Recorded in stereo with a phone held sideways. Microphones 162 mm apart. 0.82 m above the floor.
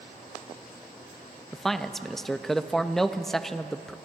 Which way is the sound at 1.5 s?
Centre (ahead or behind).